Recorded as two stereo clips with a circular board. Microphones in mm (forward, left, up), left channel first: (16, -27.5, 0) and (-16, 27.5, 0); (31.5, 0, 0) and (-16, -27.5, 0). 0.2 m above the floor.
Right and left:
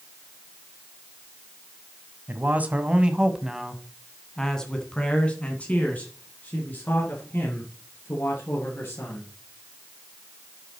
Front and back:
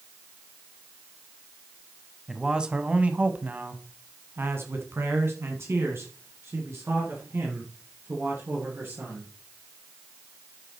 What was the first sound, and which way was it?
A man speaking, 135° left.